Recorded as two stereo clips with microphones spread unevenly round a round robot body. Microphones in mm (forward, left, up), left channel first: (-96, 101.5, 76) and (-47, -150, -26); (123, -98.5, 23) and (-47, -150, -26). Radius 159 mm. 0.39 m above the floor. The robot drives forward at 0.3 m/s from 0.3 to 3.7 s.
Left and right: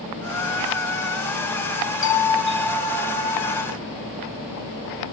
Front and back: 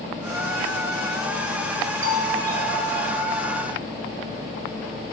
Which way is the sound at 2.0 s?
155° left.